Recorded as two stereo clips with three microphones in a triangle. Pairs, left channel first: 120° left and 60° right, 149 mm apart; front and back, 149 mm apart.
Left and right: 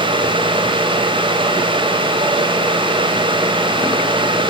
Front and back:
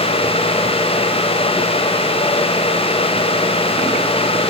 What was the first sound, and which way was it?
Only background noise.